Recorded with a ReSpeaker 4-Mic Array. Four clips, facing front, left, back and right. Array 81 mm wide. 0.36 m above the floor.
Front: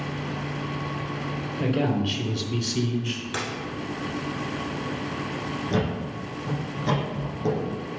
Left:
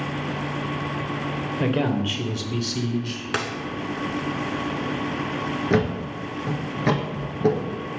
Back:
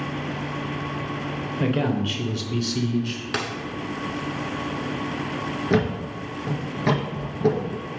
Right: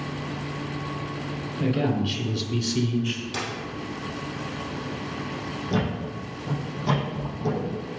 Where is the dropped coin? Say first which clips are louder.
Left 9 dB, back 4 dB; 110° left, 0.8 m.